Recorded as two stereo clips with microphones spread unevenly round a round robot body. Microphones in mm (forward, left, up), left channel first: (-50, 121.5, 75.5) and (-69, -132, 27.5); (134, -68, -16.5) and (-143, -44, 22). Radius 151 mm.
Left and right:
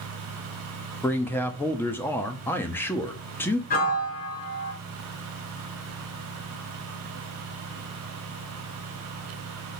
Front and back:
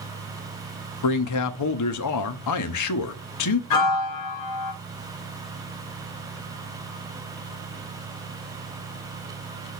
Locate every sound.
1.0 s a man speaking: straight ahead, 1.0 m
3.7 s a piano: 30° left, 1.8 m